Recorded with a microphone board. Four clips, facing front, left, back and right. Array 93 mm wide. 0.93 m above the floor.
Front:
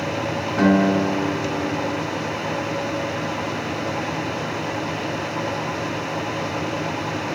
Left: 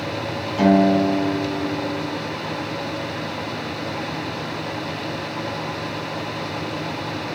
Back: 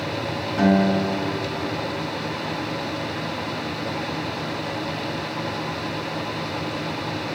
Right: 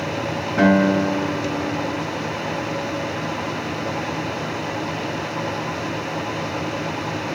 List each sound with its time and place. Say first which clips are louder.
0.6 s a guitar: left 1 dB, front 2 dB; 75° right, 5.5 m